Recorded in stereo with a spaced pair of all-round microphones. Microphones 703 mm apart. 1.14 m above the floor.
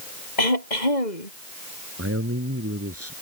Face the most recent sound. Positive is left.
turn(degrees=-20)  # may be behind; listen again after turning